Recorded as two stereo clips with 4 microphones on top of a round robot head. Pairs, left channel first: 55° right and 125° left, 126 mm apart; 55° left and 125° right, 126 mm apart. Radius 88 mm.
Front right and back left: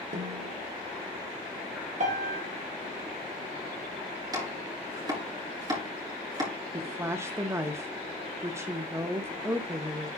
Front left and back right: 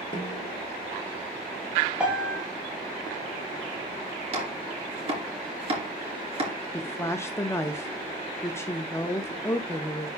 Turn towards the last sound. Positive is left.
turn(degrees=90)